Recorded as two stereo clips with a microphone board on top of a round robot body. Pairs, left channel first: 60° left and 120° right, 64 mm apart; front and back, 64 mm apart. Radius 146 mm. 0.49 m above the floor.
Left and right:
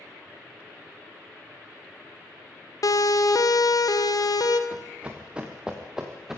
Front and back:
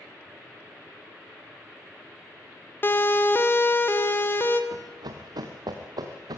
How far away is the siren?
About 2.5 m.